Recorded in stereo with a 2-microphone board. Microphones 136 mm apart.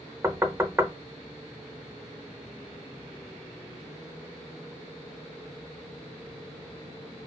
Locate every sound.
0.2 s knocking: 15° right (ahead or behind), 0.6 m